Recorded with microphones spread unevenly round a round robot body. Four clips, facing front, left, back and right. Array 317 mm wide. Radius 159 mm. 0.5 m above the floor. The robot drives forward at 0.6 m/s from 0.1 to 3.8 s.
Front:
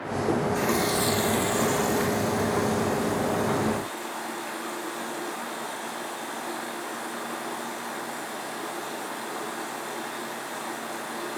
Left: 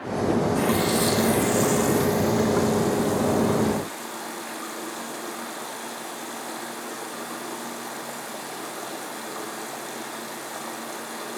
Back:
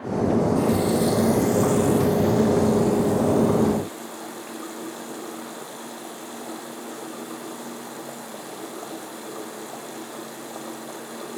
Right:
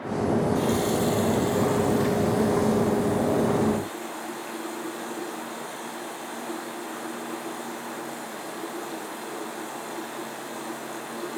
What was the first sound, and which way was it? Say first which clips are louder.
A running tap: left 1 dB, back 4 dB; 30° left.